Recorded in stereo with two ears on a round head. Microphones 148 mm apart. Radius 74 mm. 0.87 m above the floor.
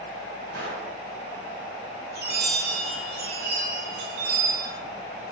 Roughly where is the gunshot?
Right.